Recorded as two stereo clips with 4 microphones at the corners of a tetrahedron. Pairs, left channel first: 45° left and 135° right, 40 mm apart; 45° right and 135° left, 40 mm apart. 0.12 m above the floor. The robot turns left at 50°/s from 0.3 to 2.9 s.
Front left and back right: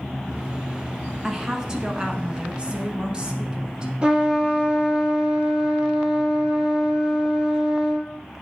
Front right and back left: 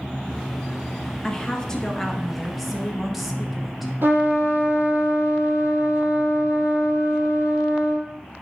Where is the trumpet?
160° left, 1.6 m.